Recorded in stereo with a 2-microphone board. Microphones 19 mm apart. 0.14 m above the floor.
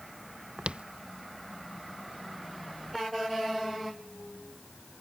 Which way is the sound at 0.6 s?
75° right (ahead or behind).